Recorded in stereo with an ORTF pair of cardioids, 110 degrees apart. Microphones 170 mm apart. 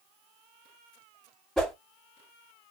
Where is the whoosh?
Straight ahead, 1.2 m.